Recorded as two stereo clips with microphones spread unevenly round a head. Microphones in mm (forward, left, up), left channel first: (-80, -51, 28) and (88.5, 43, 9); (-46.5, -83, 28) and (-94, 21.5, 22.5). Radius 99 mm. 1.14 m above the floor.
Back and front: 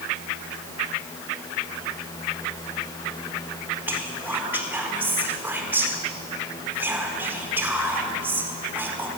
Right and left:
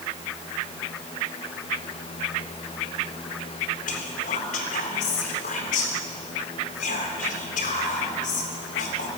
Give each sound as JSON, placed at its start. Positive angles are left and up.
{"t": 3.9, "sound": "whispering", "azimuth_deg": -50, "distance_m": 4.0}